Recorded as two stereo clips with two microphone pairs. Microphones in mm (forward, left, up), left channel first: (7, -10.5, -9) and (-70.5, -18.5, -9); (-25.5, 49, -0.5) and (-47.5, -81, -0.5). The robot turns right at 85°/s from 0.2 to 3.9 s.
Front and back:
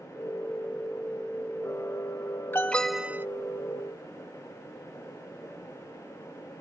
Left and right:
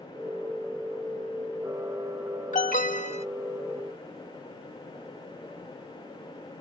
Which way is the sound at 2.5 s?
65° left.